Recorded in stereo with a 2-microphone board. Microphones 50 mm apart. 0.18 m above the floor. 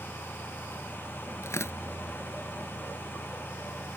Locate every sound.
1.4 s tearing paper: 65° left (ahead or behind)